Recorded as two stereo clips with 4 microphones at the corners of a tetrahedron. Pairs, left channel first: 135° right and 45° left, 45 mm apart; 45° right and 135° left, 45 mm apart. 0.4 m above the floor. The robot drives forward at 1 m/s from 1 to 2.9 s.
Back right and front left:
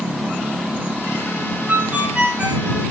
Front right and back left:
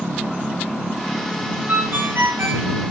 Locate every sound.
1.7 s a ringtone: 95° left, 2.5 m; by 2.7 s 115° left, 2.5 m